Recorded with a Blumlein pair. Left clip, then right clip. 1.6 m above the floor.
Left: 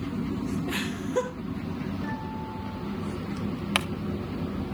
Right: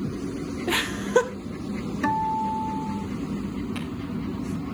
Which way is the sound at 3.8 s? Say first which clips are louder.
Left 9 dB; 40° left.